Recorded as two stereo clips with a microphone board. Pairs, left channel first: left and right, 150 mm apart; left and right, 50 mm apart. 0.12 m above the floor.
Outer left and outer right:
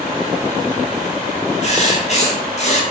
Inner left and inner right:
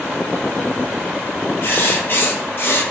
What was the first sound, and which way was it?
Writing, 50° left (ahead or behind).